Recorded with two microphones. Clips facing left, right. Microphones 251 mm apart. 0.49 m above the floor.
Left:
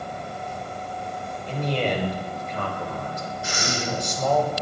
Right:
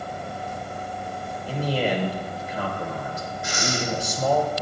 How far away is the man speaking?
About 1.4 m.